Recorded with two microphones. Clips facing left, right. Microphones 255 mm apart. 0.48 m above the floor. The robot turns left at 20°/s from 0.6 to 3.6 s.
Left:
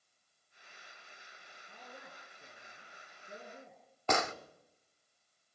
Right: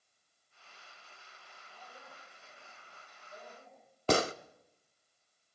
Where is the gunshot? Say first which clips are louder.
Right 5 dB; 35° right (ahead or behind), 0.6 m.